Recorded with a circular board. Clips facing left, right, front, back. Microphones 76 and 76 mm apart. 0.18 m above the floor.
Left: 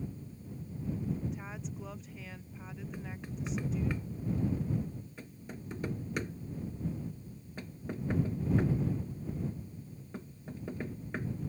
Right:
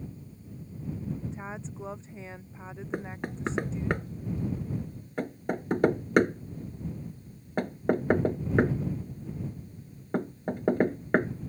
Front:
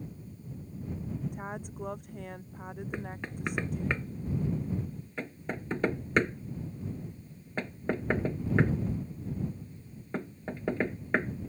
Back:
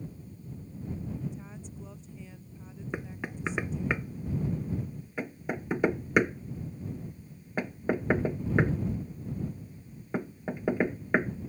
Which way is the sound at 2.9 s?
100° right.